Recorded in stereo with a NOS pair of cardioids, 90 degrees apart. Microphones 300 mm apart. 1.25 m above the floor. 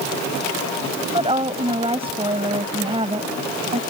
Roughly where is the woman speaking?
Ahead.